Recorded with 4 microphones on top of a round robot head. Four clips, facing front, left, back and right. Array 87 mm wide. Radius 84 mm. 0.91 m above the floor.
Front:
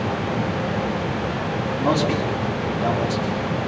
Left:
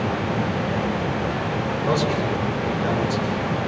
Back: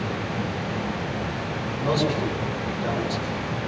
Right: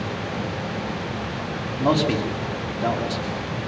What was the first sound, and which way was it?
A man speaking, 65° right.